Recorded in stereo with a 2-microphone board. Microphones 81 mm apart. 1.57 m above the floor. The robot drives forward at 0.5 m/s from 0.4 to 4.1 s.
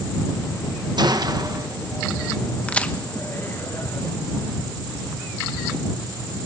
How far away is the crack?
About 0.9 m.